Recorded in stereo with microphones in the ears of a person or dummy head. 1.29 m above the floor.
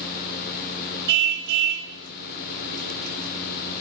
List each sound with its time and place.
1.1 s a car horn: 65° right (ahead or behind), 3 m